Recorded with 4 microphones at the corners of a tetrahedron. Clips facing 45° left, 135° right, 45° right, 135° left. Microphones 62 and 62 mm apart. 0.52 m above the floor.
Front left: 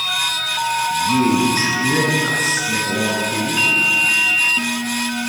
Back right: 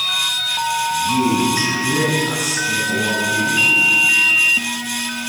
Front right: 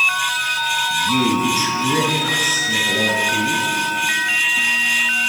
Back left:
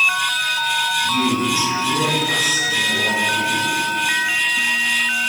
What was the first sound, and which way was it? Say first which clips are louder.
A man speaking: front left 2 dB, front right 1 dB; 5° right.